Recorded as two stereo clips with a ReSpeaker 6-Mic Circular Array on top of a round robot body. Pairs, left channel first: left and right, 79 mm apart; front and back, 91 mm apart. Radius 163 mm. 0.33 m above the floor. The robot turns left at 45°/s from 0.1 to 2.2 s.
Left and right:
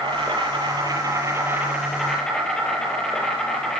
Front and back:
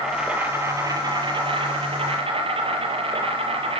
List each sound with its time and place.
0.0 s an insect: 90° right, 7 m; by 3.8 s 175° left, 7 m